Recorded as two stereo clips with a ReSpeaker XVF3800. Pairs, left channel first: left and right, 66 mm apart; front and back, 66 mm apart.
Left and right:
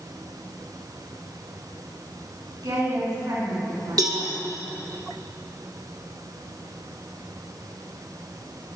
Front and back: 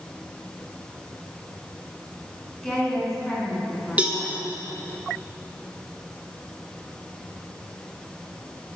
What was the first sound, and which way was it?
A woman speaking, 85° right.